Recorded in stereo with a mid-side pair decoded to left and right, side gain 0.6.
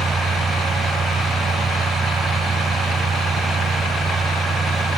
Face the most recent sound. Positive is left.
turn(degrees=-25)